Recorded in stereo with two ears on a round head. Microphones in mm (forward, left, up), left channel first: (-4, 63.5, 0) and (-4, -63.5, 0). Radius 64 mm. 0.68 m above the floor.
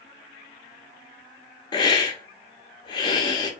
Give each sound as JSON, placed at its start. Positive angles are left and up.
{"t": 1.7, "sound": "a hiss", "side_deg": 30, "distance_m": 0.6}